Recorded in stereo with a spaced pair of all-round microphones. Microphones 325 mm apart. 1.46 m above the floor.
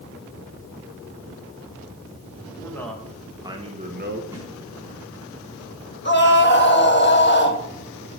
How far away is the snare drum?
About 4.5 m.